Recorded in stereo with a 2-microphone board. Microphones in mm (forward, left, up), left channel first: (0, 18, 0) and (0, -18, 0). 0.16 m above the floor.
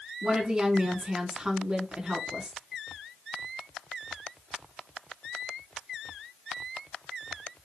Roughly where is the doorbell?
I don't hear a doorbell.